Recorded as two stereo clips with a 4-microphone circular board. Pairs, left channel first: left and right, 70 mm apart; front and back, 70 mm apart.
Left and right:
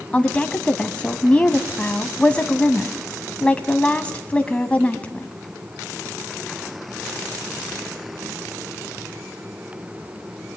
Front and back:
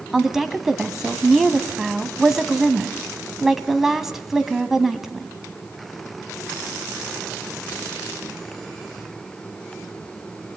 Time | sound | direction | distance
0.1 | a woman speaking | 105° left | 1.2 m